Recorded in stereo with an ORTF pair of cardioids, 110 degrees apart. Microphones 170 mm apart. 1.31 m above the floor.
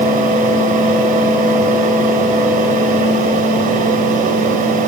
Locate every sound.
0.0 s a fan: 55° right, 7 m